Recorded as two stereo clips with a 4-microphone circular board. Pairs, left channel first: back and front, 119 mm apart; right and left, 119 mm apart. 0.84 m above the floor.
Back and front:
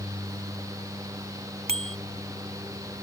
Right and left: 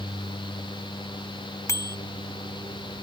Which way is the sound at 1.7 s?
25° right.